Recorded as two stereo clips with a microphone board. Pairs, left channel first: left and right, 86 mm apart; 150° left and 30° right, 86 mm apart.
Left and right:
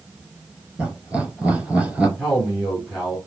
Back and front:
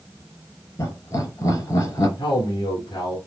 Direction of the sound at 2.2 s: 175° right.